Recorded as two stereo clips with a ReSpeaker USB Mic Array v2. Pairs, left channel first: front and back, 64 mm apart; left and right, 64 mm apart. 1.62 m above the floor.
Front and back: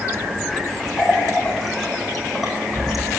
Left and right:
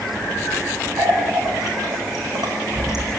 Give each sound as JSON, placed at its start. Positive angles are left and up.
{"t": 1.0, "sound": "a running tap", "azimuth_deg": -90, "distance_m": 5.5}